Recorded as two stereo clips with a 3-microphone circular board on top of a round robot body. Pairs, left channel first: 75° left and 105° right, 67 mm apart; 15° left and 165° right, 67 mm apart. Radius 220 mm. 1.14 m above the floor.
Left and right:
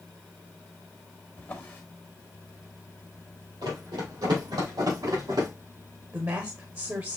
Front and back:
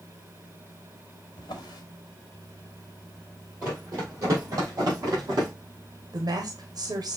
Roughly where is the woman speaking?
Behind right.